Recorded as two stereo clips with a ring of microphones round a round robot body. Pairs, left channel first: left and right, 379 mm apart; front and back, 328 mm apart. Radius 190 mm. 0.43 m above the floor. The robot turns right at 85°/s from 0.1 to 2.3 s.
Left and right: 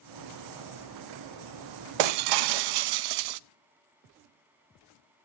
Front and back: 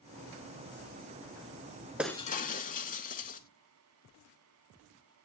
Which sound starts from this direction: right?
Breaking glass, at 2.0 s.